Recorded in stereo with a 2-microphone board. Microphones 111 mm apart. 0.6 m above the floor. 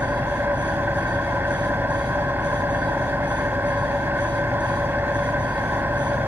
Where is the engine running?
20° right (ahead or behind), 0.8 m.